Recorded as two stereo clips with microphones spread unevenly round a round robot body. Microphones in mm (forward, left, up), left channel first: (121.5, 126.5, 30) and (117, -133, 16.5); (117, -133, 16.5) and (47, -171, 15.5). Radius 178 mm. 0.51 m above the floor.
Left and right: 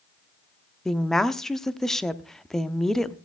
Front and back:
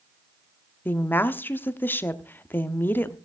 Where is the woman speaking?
5° right, 0.7 m.